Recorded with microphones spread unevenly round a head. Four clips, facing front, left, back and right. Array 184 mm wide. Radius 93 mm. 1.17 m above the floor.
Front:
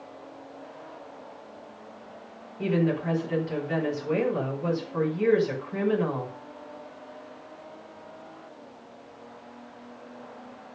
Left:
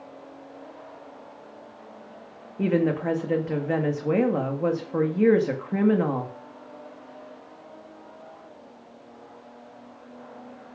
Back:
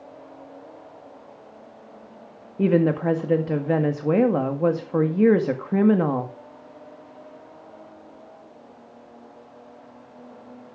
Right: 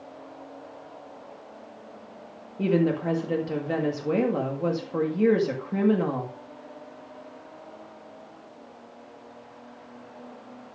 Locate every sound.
2.6 s a woman speaking: 170° left, 1.8 m